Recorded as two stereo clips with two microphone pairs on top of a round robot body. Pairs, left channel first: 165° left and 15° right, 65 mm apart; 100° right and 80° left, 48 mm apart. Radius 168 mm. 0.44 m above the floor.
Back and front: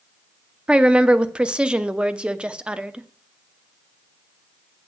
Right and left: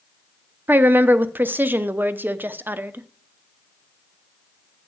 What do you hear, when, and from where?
0.7 s a woman speaking: 65° left, 0.9 m